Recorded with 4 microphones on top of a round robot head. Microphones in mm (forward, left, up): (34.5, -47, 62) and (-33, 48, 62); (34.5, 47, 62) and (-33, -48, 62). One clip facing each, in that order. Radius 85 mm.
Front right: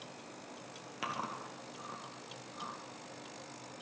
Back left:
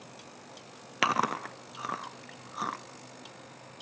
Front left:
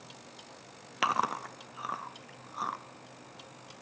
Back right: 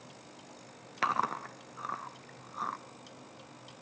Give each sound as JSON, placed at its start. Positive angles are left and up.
{"t": 1.0, "sound": "chewing", "azimuth_deg": 135, "distance_m": 0.6}